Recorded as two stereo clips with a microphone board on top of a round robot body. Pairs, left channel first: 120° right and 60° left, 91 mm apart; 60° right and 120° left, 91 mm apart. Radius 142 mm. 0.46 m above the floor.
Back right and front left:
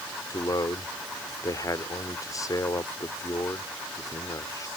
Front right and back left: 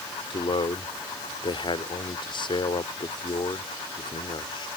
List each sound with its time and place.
0.3 s a man speaking: 75° right